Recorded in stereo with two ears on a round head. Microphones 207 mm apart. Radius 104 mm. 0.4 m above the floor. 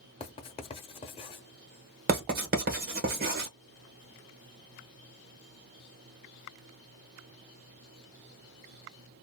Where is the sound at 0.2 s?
25° left (ahead or behind), 0.7 m.